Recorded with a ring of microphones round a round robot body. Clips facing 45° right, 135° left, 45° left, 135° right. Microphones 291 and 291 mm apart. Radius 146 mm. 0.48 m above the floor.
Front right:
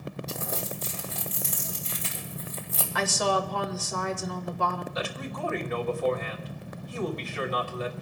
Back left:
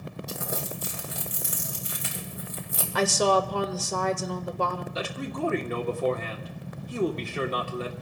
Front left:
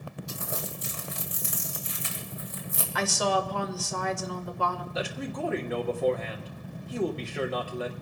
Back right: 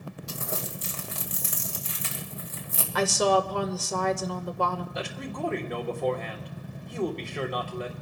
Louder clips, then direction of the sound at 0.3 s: Back left 3 dB, back right 2 dB; 150° right.